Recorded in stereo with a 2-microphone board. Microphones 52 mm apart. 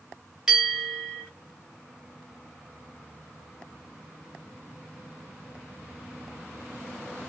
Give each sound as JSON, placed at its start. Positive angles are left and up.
{"t": 0.5, "sound": "a bell", "side_deg": -10, "distance_m": 1.2}